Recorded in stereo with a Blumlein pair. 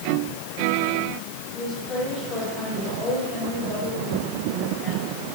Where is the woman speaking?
15° left, 6 m.